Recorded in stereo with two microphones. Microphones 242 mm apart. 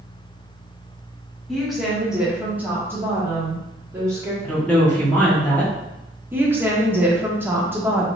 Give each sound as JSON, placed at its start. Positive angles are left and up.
{"t": 1.5, "sound": "a woman speaking", "side_deg": 0, "distance_m": 1.4}
{"t": 4.4, "sound": "a woman speaking", "side_deg": 5, "distance_m": 0.8}
{"t": 6.3, "sound": "a woman speaking", "side_deg": -10, "distance_m": 0.7}